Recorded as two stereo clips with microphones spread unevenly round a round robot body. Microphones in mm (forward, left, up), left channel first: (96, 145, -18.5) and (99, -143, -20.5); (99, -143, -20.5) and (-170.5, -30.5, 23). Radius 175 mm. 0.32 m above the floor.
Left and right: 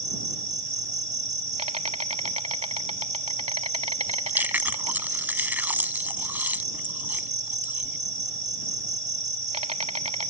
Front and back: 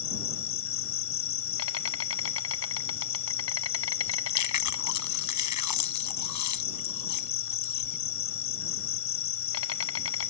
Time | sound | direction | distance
0.0 | an insect | 25° right | ?
4.0 | chewing | 5° right | ?